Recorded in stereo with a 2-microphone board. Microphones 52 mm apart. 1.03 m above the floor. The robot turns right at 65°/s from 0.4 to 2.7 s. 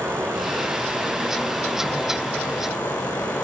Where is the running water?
75° right, 3 m; by 3.4 s 75° left, 3 m.